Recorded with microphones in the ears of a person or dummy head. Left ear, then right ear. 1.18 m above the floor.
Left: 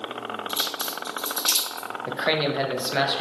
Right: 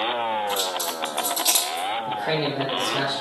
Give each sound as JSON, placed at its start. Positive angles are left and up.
{"t": 0.5, "sound": "a crack", "side_deg": 20, "distance_m": 1.8}
{"t": 2.1, "sound": "a man speaking", "side_deg": 40, "distance_m": 0.6}